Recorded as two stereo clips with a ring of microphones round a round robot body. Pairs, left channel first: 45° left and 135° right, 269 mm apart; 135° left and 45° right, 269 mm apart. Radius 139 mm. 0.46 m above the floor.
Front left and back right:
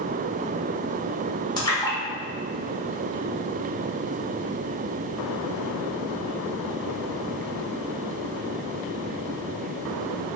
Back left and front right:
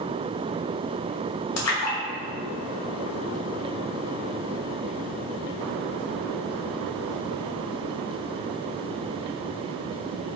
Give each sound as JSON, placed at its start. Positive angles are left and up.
{"t": 1.6, "sound": "a splash", "azimuth_deg": 120, "distance_m": 0.8}